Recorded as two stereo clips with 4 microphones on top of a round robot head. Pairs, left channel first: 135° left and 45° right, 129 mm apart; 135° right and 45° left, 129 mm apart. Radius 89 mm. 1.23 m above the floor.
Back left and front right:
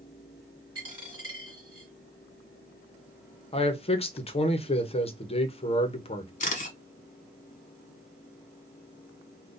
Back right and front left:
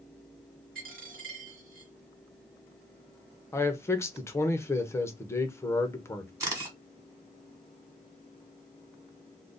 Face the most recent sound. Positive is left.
turn(degrees=110)